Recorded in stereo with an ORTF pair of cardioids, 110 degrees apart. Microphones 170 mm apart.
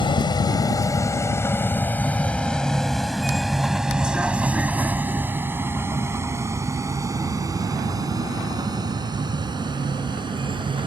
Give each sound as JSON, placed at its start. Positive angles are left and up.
{"t": 0.0, "sound": "a vehicle", "azimuth_deg": 30}